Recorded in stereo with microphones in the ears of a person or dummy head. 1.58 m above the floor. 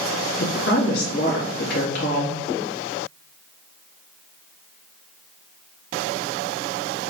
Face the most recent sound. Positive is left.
turn(degrees=60)  # may be behind; listen again after turning